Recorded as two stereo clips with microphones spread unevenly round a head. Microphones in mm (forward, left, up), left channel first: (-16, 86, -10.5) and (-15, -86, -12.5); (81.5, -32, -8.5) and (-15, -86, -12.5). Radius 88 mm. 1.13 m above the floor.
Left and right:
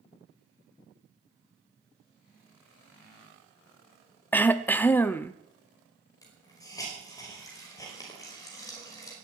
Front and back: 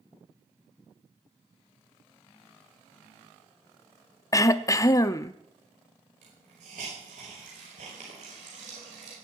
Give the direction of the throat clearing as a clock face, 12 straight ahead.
11 o'clock.